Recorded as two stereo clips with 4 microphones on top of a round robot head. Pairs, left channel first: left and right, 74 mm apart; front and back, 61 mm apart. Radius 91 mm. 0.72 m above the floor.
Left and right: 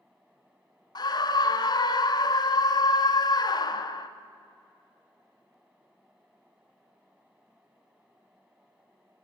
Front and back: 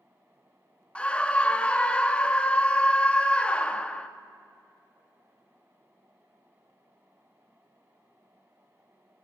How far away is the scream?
About 1.2 m.